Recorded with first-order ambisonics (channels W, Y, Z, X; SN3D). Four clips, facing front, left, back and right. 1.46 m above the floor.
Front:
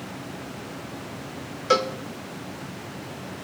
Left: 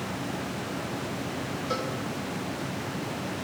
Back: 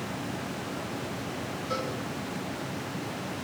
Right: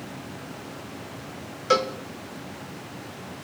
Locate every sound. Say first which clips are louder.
1.7 s a cowbell: right 11 dB, front 12 dB; 35° right, 1.1 m